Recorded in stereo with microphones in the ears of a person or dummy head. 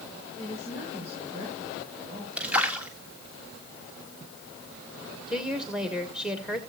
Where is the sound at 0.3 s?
25° right (ahead or behind), 7 m.